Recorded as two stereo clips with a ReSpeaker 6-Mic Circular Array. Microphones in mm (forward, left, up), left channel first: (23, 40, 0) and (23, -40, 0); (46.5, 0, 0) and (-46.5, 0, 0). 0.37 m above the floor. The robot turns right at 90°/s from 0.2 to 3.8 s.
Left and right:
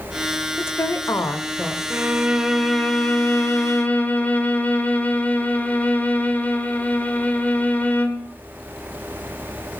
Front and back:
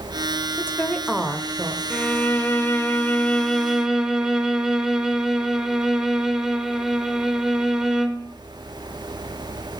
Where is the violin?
65° right, 0.8 m; by 8.3 s 105° left, 0.8 m.